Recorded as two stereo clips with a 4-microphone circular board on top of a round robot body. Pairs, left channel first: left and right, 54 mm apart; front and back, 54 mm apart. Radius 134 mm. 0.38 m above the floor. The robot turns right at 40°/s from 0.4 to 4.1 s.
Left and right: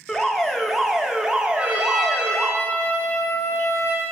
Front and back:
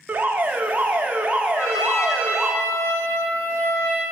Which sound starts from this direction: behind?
An alarm, at 0.1 s.